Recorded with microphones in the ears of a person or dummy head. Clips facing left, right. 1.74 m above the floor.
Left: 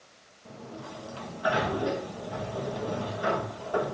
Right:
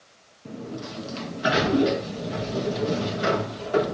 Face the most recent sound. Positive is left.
turn(degrees=-30)  # may be behind; listen again after turning